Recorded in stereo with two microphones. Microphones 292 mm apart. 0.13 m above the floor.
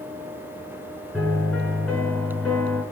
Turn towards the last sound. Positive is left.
turn(degrees=5)  # may be behind; listen again after turning